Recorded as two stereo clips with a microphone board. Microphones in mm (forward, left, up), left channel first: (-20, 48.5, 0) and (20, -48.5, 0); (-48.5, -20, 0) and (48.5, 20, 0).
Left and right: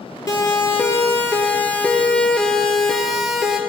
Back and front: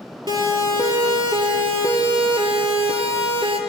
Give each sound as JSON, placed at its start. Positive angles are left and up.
{"t": 0.3, "sound": "a siren", "azimuth_deg": 60, "distance_m": 3.0}